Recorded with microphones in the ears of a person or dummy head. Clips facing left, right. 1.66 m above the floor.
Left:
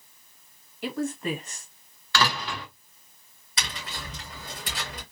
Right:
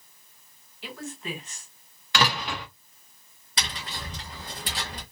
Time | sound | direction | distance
0.8 | a woman speaking | 45° left (ahead or behind) | 0.9 m
2.1 | a door slam | 20° right (ahead or behind) | 1.1 m
3.6 | tapping | 35° right (ahead or behind) | 1.2 m